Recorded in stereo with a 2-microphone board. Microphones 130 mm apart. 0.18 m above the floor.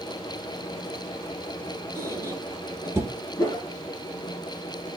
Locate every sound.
1.9 s a squeak: 20° right (ahead or behind), 0.9 m
3.4 s a whoosh: 25° left (ahead or behind), 1.9 m